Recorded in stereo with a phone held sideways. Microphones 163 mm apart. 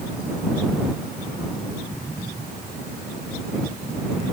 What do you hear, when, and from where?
Only background noise.